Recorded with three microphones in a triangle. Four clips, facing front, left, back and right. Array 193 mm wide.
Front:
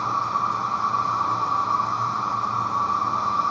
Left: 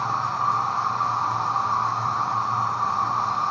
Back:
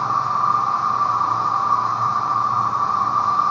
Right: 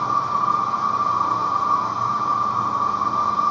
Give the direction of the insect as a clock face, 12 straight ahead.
7 o'clock.